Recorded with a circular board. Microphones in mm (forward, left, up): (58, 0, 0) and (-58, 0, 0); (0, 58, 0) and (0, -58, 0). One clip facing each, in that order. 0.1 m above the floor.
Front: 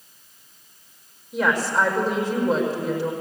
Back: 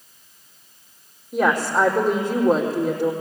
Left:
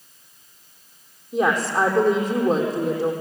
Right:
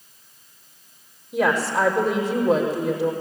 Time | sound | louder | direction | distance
1.3 | a woman speaking | back 2 dB, even | 140° left | 4.5 m